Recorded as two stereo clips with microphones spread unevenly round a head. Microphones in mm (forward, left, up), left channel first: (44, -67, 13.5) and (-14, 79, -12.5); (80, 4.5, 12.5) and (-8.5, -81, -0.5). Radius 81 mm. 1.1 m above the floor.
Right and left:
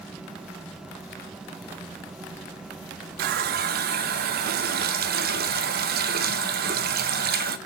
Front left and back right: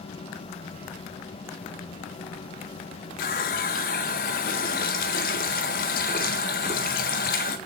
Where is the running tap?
80° left, 0.5 m.